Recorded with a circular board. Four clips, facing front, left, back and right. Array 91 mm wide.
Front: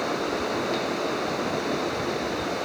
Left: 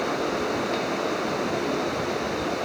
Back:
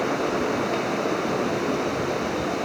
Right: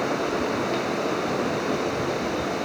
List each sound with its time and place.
Only background noise.